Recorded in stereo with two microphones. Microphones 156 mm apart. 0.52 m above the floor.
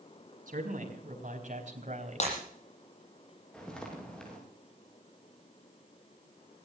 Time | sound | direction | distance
0.5 | a man speaking | 60° right (ahead or behind) | 5 m
2.2 | breaking glass | 50° left (ahead or behind) | 9.5 m
3.5 | footsteps | 5° left (ahead or behind) | 6.5 m